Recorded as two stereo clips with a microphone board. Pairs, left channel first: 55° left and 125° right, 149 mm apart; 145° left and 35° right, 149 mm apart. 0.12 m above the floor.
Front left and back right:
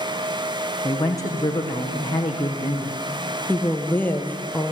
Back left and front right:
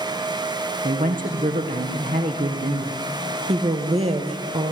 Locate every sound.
0.8 s a woman speaking: 10° right, 5 m
3.5 s a woman speaking: 20° right, 2.5 m